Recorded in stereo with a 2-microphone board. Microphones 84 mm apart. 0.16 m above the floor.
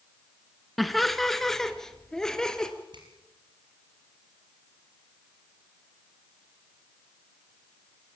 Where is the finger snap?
65° right (ahead or behind), 5 m.